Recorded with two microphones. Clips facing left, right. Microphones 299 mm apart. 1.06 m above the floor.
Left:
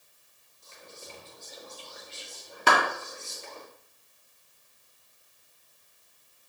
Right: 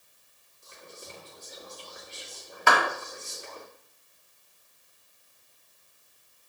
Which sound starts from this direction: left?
A clap, at 2.7 s.